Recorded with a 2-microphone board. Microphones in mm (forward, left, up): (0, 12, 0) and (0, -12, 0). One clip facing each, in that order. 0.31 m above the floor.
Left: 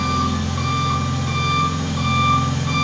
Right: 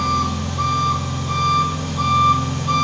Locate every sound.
0.0 s an engine running: 75° left (ahead or behind), 1.6 m